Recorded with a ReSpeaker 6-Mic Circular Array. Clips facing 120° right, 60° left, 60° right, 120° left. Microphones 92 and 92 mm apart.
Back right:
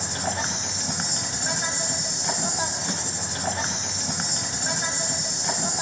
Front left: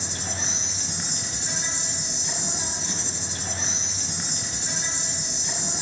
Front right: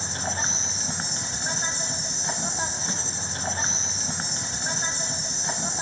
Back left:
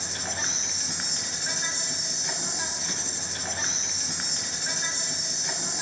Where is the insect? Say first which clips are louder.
Back right 6 dB, front right 4 dB; 110° right, 0.8 m.